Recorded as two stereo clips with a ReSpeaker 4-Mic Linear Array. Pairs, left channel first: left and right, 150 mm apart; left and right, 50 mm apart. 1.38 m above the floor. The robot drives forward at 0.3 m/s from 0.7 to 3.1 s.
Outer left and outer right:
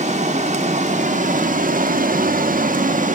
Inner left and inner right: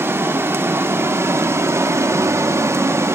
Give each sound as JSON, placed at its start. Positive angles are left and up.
{"t": 0.0, "sound": "running water", "side_deg": -50, "distance_m": 0.9}